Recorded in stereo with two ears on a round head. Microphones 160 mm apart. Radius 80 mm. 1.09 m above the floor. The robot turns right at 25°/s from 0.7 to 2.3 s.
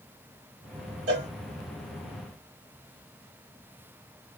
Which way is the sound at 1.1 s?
65° right (ahead or behind).